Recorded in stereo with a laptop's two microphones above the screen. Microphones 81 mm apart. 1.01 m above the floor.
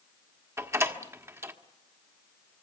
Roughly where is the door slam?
Right.